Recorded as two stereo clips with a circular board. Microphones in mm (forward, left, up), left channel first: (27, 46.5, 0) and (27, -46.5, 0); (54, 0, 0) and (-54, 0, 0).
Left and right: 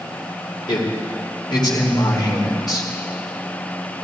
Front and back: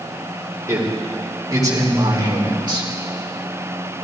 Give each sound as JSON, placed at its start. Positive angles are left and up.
{"t": 0.7, "sound": "a man speaking", "azimuth_deg": 115, "distance_m": 3.0}